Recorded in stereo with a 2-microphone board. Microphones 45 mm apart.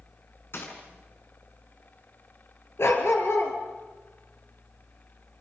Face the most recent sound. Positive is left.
turn(degrees=70)  # may be behind; listen again after turning